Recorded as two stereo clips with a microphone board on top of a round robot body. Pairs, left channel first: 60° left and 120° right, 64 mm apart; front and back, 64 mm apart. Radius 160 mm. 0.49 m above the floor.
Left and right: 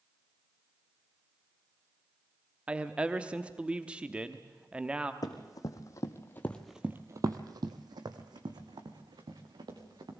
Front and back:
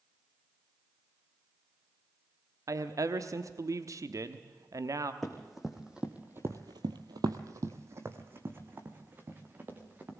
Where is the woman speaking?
170° left, 1.0 m.